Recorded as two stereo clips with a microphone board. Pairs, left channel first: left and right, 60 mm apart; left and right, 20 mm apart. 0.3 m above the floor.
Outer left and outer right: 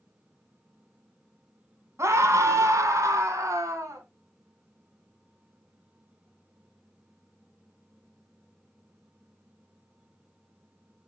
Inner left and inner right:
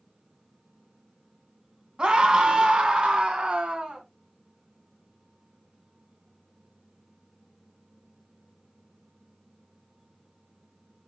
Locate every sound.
2.0 s a scream: 60° right (ahead or behind), 2.5 m; by 4.0 s 65° right (ahead or behind), 2.5 m